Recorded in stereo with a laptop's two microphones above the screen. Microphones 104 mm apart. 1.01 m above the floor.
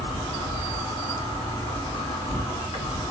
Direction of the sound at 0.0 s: 70° left (ahead or behind).